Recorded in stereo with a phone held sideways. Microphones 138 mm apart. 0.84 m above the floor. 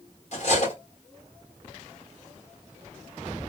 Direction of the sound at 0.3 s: 55° left (ahead or behind).